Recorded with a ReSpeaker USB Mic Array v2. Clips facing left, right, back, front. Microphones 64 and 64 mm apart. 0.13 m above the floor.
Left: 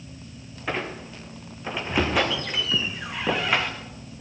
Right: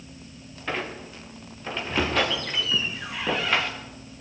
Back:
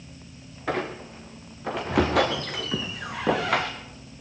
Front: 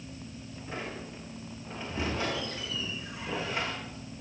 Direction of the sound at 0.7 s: 170° left.